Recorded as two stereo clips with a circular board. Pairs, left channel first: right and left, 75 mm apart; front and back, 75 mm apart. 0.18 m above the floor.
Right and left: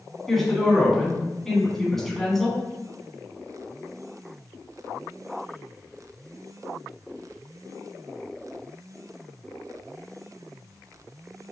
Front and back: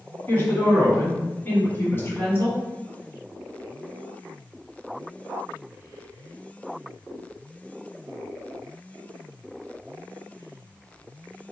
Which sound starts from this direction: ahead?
A woman speaking, at 0.3 s.